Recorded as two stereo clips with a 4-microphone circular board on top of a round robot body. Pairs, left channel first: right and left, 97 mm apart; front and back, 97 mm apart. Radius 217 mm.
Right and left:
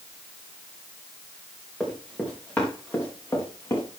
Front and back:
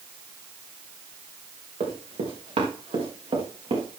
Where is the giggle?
No giggle in this recording.